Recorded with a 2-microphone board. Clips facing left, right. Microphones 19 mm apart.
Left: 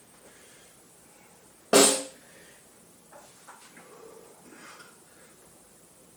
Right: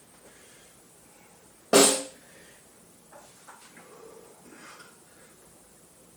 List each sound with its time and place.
1.7 s a snare drum: 30° left (ahead or behind), 1.6 m